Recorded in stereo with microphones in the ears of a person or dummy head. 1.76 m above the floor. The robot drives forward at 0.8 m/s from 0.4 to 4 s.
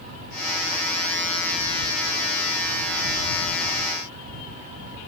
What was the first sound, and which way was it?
Only background noise.